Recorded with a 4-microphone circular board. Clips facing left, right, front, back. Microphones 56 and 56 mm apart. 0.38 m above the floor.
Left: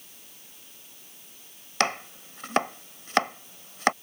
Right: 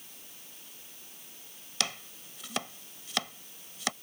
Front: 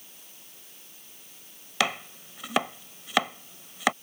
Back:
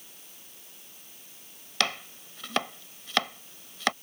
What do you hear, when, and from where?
1.8 s chopping: 75° left